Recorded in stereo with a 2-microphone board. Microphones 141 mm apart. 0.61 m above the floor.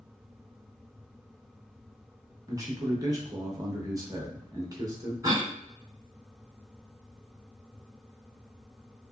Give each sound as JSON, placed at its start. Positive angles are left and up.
{"t": 2.5, "sound": "a man speaking", "side_deg": -25, "distance_m": 0.9}
{"t": 5.2, "sound": "a cough", "side_deg": -25, "distance_m": 1.6}